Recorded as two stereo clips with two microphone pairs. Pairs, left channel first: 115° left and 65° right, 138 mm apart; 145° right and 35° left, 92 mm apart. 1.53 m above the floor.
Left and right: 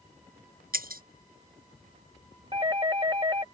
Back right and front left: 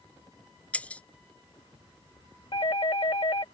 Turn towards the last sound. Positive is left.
turn(degrees=-125)